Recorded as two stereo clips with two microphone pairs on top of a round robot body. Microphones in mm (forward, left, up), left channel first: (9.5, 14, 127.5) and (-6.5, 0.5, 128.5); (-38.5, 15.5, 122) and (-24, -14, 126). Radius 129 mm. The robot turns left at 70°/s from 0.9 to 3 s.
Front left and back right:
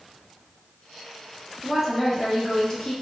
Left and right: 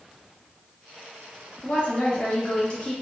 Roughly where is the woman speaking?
Behind left.